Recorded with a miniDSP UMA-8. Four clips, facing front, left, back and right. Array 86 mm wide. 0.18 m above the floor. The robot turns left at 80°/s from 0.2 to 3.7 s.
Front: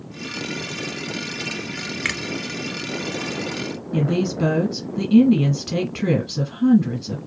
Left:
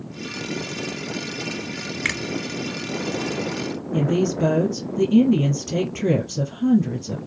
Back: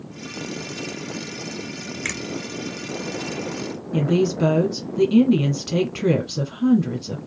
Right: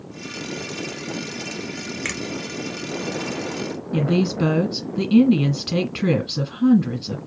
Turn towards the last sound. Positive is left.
turn(degrees=-85)